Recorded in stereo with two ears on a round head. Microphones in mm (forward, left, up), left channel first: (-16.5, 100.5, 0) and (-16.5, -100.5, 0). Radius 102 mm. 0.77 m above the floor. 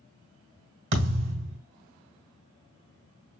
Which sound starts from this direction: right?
A thud, at 0.9 s.